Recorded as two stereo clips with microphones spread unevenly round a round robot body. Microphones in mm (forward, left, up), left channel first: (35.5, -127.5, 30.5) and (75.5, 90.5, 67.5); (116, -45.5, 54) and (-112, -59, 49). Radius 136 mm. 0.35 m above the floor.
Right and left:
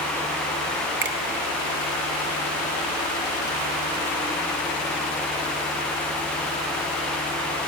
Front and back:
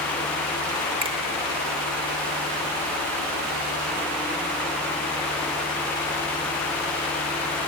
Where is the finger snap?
120° left, 1.1 m.